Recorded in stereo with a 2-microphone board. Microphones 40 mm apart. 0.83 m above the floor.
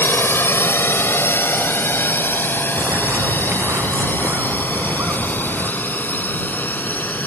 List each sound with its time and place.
0.0 s a drone: 70° left (ahead or behind); by 7.3 s 50° left (ahead or behind)
2.8 s a bird: 70° right (ahead or behind)